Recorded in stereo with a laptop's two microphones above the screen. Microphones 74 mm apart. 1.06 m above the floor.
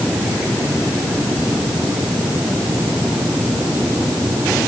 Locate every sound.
Only background noise.